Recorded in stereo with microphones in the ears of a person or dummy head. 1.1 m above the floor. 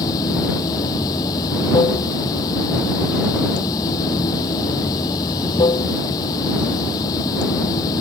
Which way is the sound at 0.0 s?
20° left (ahead or behind).